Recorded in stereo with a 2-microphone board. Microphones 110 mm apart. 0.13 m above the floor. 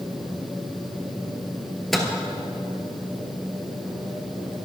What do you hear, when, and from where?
1.9 s a microwave: centre (ahead or behind), 1.7 m